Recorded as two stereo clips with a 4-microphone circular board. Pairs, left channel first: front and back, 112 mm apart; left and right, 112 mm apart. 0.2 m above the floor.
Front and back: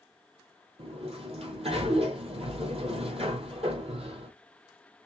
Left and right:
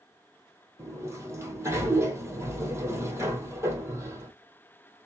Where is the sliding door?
155° right, 2.0 m.